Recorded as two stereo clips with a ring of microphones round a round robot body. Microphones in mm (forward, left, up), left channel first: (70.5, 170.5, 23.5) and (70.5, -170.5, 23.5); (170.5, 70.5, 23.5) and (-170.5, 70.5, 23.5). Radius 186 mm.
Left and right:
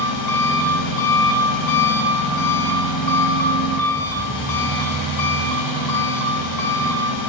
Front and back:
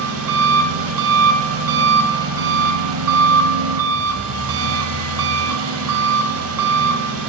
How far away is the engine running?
About 0.7 m.